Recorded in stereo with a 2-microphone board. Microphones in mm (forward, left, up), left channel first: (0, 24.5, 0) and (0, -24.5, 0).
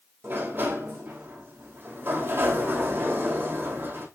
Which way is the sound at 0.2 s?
50° right (ahead or behind).